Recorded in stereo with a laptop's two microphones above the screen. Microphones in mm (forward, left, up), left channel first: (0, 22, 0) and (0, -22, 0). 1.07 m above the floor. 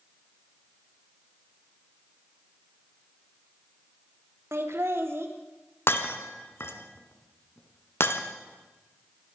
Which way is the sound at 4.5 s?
65° right (ahead or behind).